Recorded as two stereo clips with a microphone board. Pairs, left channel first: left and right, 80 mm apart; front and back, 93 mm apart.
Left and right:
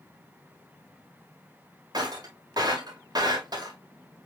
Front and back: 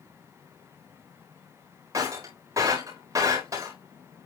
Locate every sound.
1.9 s breaking glass: 125° right, 5 m